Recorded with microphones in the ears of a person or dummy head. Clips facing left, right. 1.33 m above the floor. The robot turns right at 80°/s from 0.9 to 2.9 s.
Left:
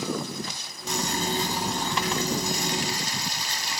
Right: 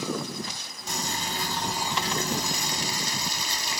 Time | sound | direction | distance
0.9 | boiling | 115° left | 0.7 m